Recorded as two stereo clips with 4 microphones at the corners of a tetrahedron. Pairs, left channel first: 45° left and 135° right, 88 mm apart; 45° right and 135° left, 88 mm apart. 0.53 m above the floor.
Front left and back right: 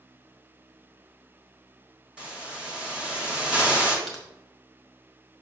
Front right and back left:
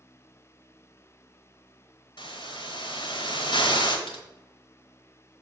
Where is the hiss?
55° right, 1.5 m.